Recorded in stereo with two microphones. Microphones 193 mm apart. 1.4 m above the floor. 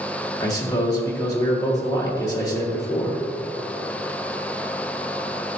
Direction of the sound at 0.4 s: 20° left (ahead or behind).